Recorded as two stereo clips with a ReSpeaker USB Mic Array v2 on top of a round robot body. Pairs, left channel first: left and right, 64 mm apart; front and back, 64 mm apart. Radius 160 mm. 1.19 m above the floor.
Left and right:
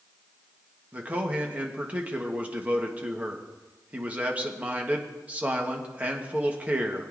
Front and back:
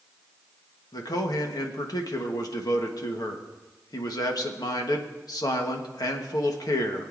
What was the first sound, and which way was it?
A man speaking, 20° right.